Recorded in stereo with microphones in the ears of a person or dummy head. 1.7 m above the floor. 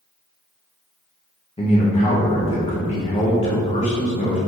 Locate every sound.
1.6 s a man speaking: 25° left (ahead or behind), 1.9 m